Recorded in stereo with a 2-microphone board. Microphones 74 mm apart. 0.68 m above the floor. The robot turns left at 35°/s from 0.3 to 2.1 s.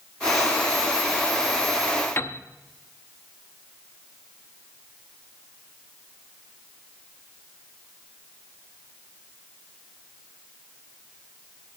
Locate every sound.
2.2 s a piano: 30° left (ahead or behind), 0.7 m